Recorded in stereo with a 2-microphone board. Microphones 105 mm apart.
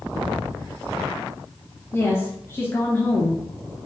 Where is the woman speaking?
25° left (ahead or behind), 1.3 m.